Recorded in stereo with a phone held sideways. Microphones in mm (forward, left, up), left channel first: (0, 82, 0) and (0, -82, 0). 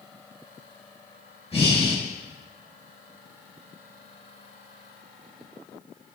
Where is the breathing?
35° left (ahead or behind), 3 m.